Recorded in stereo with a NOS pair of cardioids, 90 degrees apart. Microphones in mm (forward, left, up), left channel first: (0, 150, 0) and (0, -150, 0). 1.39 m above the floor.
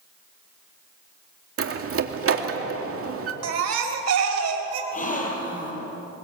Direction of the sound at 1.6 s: 45° right.